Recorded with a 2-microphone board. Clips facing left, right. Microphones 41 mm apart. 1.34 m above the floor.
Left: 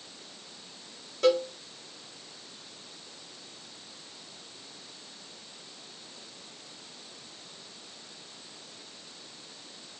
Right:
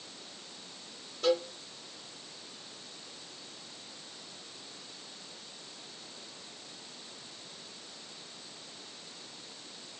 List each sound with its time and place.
1.2 s a cowbell: 80° left, 1.2 m